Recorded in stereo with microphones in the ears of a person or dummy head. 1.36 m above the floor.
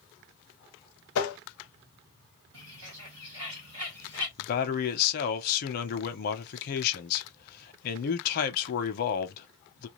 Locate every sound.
1.1 s tapping: 80° left, 0.9 m
2.5 s a bird: 65° right (ahead or behind), 1.7 m
4.4 s a man speaking: 50° left (ahead or behind), 0.8 m